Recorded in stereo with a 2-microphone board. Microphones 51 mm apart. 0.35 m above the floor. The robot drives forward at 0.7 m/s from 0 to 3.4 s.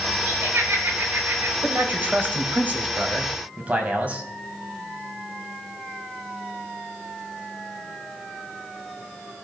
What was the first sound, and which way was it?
Laughter, 65° right (ahead or behind).